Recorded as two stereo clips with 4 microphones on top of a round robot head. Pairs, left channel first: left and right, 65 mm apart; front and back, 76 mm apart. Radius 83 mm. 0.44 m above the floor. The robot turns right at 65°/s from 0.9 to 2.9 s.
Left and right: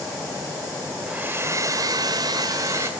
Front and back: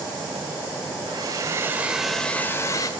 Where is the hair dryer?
160° right, 1.3 m; by 2.9 s 40° right, 1.3 m.